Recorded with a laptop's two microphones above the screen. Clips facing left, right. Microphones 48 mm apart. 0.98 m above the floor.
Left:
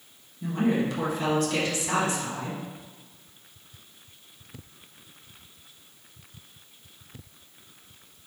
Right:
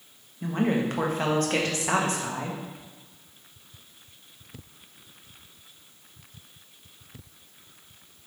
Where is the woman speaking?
45° right (ahead or behind), 0.9 m.